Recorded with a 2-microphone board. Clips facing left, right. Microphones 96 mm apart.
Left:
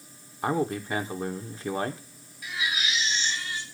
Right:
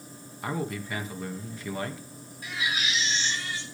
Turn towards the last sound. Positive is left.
turn(degrees=-40)  # may be behind; listen again after turning